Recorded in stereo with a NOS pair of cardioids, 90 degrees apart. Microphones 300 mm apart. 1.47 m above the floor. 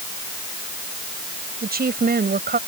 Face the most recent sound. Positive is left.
turn(degrees=-30)